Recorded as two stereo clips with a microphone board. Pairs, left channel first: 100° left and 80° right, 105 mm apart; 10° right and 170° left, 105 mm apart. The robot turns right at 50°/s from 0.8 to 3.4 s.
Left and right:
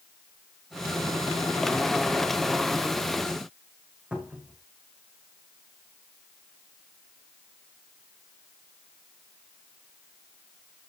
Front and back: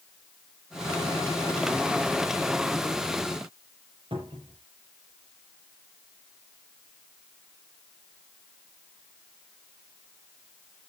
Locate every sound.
4.1 s a cupboard door: 160° right, 3.5 m